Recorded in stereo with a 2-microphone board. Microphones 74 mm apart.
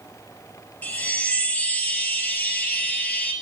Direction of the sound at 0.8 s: 20° left (ahead or behind).